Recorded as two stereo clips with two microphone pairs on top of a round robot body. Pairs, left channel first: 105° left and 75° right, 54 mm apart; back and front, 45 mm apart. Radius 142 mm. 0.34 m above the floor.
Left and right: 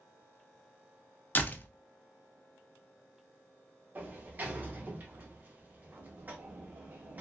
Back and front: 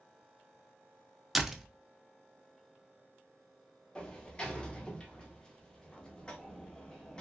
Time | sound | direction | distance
1.4 | a door slam | 70° left | 0.6 m
4.0 | a sliding door | 110° right | 0.9 m